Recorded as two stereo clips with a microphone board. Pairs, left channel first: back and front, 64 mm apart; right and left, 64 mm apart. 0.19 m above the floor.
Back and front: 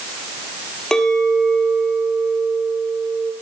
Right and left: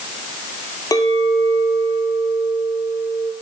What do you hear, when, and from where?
0.9 s a clink: 100° right, 3 m